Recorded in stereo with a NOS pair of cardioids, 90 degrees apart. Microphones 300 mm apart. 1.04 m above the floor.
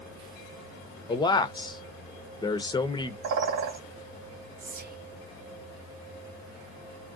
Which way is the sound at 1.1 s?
15° left.